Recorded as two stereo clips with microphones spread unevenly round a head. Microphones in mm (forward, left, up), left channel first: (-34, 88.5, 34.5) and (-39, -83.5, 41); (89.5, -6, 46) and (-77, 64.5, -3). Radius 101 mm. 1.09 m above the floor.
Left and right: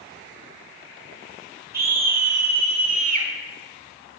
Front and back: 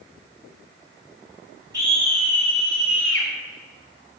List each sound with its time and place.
1.7 s a scream: 130° right, 4.5 m; by 3.3 s 140° right, 3.5 m